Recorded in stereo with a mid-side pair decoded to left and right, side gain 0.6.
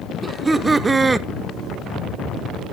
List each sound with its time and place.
0.2 s laughter: 20° right, 0.9 m